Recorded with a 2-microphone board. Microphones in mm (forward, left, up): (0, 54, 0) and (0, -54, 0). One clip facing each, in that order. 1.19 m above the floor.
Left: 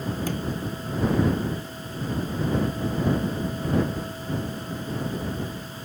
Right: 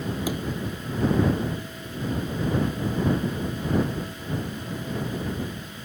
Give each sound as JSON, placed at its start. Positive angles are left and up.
{"t": 0.2, "sound": "a sliding door", "side_deg": -10}